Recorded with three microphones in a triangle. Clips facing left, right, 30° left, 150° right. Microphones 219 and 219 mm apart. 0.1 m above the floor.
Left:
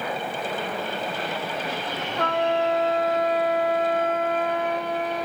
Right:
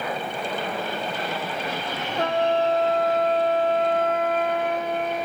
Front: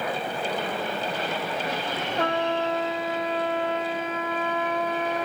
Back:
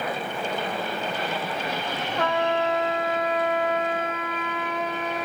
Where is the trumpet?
30° right, 3 m.